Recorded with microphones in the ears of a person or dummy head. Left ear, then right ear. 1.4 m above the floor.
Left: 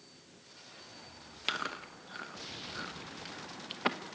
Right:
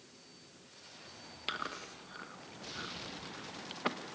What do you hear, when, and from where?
1.5 s chewing: 15° left (ahead or behind), 1.0 m